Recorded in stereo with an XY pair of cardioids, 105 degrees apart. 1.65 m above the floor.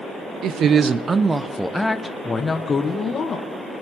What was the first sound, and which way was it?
A woman speaking, 70° right.